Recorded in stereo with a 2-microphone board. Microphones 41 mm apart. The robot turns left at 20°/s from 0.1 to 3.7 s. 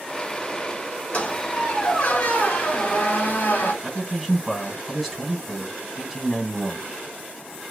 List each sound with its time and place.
1.1 s a squeak: 135° left, 1.1 m; by 3.7 s 85° left, 1.1 m
3.8 s a man speaking: centre (ahead or behind), 1.5 m